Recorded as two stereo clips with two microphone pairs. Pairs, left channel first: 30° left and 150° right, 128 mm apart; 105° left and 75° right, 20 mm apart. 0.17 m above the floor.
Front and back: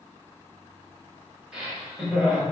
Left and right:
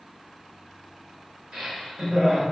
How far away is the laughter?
About 2.0 m.